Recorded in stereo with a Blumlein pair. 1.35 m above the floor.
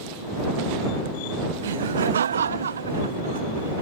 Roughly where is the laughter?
Ahead right.